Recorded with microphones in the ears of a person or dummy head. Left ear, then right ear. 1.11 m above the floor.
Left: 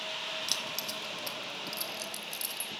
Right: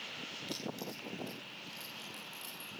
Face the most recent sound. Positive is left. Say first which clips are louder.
# left 8 dB
turn(degrees=40)  # may be behind; listen again after turning